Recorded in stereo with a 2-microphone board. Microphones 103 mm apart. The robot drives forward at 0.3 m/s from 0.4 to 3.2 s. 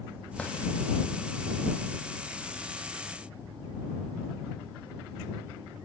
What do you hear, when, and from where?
0.4 s a drawer: 10° left (ahead or behind), 4.5 m